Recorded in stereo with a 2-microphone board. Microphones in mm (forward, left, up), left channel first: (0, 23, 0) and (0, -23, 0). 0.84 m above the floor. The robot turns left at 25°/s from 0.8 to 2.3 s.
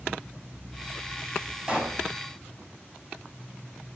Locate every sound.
1.7 s a pop: 20° right (ahead or behind), 4.5 m; by 2.0 s 30° right (ahead or behind), 4.5 m